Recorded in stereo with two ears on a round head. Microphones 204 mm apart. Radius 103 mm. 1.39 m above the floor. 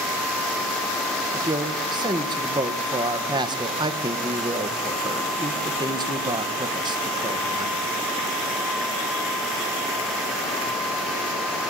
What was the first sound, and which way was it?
A man speaking, 20° right (ahead or behind).